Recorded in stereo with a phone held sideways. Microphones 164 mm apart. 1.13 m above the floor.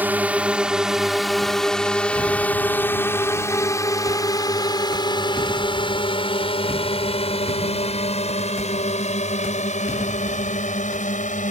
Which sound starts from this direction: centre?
A drone, at 0.0 s.